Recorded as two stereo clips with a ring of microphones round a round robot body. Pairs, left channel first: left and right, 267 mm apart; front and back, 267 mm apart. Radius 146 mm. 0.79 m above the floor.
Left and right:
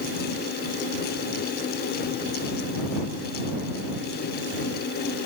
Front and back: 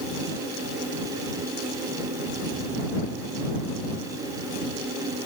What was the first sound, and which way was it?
Only background noise.